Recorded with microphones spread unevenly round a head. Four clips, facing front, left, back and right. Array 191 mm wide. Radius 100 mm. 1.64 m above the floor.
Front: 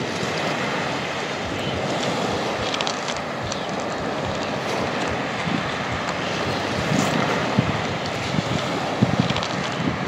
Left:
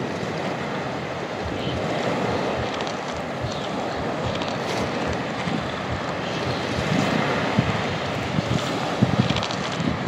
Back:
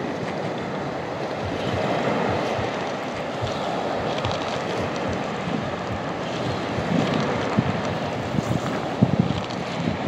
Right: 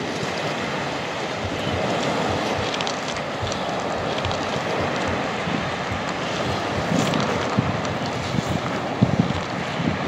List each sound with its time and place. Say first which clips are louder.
1.4 s whispering: right 2 dB, back 1 dB; 115° left, 1.2 m